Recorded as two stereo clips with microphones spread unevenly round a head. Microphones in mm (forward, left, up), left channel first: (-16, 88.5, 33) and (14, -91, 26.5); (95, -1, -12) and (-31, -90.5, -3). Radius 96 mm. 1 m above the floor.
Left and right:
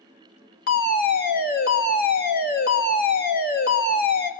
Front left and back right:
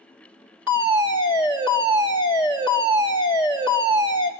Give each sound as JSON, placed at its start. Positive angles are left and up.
{"t": 0.7, "sound": "a fire alarm", "azimuth_deg": 135, "distance_m": 3.5}